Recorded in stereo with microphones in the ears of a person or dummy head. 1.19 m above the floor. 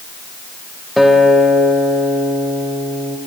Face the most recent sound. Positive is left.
turn(degrees=-5)  # may be behind; listen again after turning